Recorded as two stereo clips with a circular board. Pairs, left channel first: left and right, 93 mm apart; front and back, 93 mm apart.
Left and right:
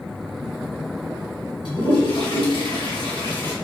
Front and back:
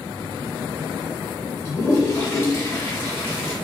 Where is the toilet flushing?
65° left, 1.9 m.